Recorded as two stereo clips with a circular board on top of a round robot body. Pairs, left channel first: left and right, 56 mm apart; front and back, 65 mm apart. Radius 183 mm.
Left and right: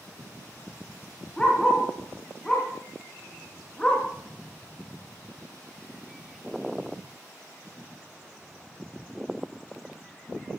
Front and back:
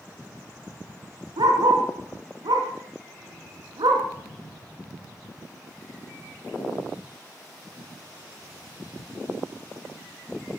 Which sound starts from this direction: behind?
A dog barking, at 1.4 s.